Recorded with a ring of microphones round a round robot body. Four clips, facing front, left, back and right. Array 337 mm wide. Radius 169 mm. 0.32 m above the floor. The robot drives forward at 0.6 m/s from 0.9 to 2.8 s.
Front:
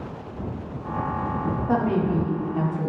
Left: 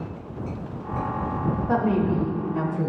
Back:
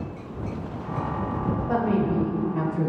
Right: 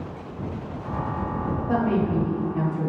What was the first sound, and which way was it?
A woman speaking, 50° left.